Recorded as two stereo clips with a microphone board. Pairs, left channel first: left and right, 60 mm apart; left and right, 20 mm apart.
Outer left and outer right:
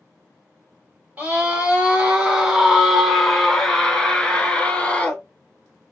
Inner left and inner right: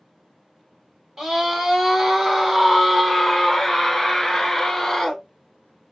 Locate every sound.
1.2 s a scream: 25° right (ahead or behind), 2.0 m; by 5.2 s 20° left (ahead or behind), 1.9 m